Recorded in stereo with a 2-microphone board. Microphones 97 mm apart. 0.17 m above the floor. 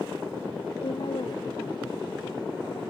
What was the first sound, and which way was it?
A woman speaking, 65° left (ahead or behind).